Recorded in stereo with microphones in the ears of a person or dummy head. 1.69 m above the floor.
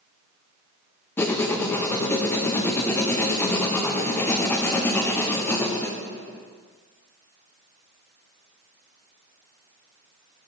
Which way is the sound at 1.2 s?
15° left (ahead or behind).